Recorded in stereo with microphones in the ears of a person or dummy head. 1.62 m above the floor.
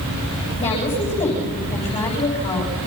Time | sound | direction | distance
0.6 | a woman speaking | 30° left (ahead or behind) | 10 m